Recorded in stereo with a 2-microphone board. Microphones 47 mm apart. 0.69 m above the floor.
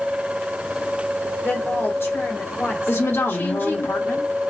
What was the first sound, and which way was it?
A woman speaking, 60° left (ahead or behind).